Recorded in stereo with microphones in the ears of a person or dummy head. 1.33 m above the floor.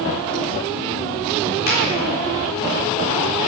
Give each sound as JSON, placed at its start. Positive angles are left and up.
{"t": 1.7, "sound": "a finger snap", "side_deg": 50, "distance_m": 4.0}